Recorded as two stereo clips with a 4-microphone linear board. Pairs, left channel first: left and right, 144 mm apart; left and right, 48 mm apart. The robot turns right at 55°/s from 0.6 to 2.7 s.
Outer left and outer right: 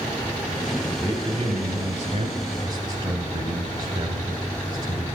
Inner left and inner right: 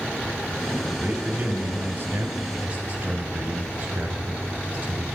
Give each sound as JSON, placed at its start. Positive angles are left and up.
{"t": 1.0, "sound": "a man speaking", "azimuth_deg": -160, "distance_m": 1.4}